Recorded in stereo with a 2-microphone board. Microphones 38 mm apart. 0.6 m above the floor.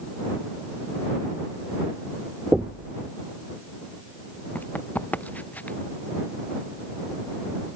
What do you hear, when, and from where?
2.5 s knocking: 50° right (ahead or behind)
4.5 s running footsteps: 45° left (ahead or behind); by 5.8 s 50° left (ahead or behind)